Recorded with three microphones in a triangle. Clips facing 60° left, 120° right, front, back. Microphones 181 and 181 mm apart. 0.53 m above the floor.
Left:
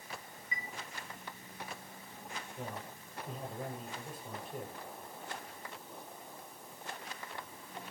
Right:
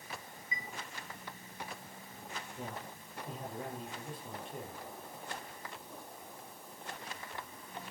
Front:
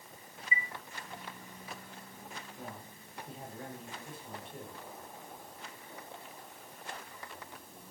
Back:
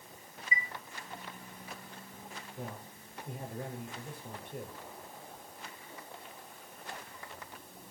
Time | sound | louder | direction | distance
0.5 | a chime | even, even | 55° left | 0.5 m
2.6 | a man speaking | left 1 dB, back 3 dB | 150° left | 9.5 m